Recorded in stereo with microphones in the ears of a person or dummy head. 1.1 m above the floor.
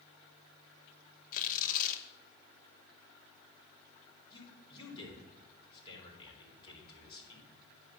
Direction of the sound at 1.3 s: 45° left (ahead or behind).